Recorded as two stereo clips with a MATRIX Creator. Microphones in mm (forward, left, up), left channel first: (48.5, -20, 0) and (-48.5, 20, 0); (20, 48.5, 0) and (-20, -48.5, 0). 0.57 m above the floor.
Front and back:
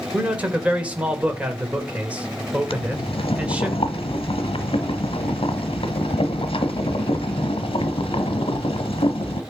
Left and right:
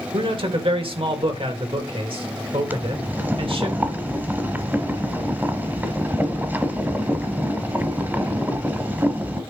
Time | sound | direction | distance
0.1 | a man speaking | 125° right | 2 m
2.7 | boiling | 40° right | 1.0 m